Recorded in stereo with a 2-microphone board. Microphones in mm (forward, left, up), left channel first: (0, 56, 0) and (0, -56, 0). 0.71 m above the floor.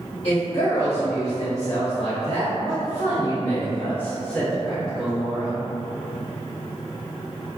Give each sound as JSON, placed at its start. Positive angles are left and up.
{"t": 0.2, "sound": "a woman speaking", "side_deg": 65, "distance_m": 1.4}